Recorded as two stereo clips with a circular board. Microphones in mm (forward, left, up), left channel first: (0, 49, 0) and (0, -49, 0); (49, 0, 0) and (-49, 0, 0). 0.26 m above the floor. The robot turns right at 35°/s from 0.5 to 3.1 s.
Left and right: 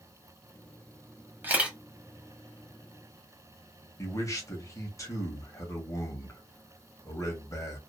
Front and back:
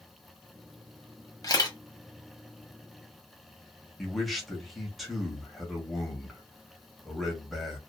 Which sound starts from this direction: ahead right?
A camera shutter, at 1.4 s.